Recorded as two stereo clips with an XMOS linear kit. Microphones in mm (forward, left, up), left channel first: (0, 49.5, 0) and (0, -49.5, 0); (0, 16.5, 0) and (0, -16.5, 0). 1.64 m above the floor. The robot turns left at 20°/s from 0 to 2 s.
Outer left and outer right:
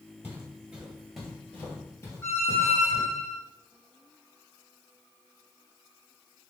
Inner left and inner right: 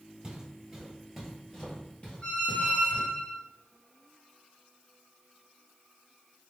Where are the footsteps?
20° right (ahead or behind), 1.7 m; by 3.1 s 45° left (ahead or behind), 3 m.